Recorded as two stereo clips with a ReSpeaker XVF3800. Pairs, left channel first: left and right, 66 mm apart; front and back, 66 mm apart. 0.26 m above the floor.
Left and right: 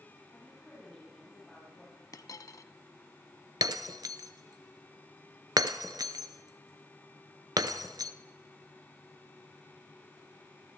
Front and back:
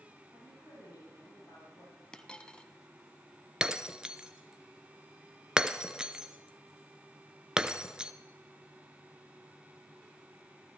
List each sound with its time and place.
0.3 s a woman speaking: 10° left, 7.5 m
2.1 s a dropped coin: 75° left, 0.8 m
3.6 s breaking glass: 100° right, 0.8 m